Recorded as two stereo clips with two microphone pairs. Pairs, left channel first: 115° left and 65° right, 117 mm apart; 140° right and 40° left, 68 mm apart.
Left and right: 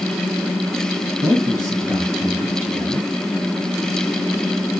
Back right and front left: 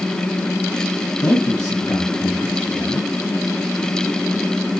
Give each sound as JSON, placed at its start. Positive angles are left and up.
{"t": 1.2, "sound": "a man speaking", "azimuth_deg": -120, "distance_m": 5.5}